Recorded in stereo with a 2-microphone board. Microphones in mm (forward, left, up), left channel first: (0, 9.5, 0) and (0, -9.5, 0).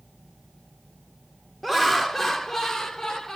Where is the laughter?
5° left (ahead or behind), 0.9 m; by 3.4 s 25° left (ahead or behind), 1.1 m.